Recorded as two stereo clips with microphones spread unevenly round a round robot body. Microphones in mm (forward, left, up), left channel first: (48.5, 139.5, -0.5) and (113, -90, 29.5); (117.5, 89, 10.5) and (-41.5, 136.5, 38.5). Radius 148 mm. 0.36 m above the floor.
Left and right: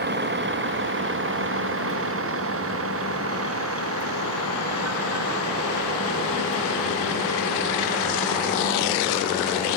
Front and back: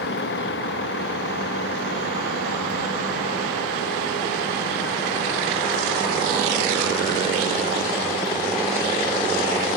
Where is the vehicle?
30° right; by 9.8 s 65° right.